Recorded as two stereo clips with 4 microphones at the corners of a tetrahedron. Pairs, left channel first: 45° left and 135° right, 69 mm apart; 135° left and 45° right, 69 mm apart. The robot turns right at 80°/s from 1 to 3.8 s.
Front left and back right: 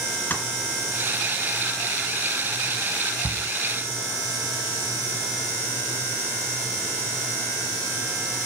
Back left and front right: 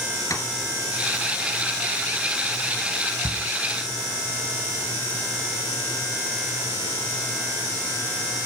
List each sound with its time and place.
0.3 s tapping: 100° left, 2 m
3.2 s a shout: 40° right, 1.4 m; by 3.5 s 20° right, 1.4 m